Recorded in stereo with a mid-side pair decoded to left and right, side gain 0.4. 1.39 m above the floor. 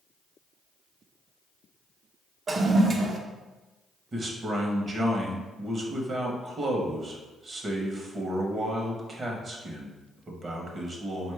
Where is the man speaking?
40° right, 0.8 m.